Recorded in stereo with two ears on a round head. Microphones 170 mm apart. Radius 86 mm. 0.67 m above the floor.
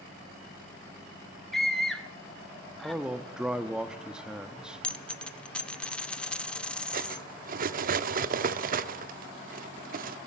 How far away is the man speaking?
About 0.7 m.